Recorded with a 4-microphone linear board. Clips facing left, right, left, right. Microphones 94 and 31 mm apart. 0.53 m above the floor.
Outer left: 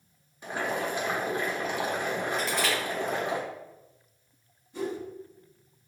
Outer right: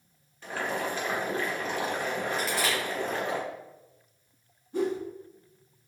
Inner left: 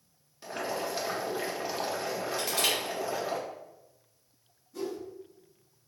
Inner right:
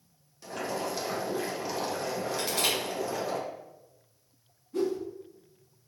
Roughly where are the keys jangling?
I don't hear keys jangling.